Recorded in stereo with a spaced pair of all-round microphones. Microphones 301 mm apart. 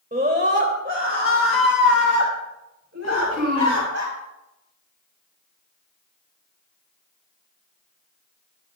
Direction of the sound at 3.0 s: 55° right (ahead or behind).